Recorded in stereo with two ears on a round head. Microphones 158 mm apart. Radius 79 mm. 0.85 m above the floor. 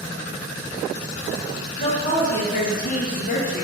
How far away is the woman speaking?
About 1.4 m.